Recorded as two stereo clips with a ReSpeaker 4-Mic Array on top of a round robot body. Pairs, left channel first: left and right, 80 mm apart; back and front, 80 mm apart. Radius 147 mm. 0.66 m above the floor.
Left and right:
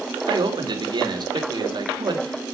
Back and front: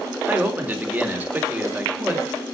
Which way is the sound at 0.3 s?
65° right.